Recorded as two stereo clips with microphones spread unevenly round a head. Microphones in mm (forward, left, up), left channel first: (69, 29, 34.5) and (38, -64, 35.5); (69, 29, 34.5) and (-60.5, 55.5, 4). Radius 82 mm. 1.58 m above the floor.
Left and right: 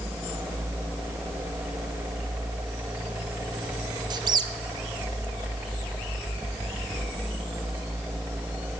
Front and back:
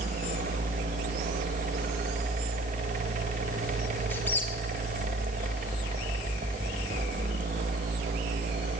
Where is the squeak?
75° right, 0.7 m.